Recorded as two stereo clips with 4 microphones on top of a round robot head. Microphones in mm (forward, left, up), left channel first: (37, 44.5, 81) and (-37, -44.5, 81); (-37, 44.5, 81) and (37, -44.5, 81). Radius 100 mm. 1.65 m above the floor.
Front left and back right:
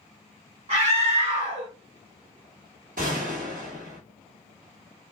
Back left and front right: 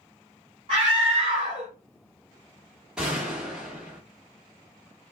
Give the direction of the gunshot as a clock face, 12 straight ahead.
4 o'clock.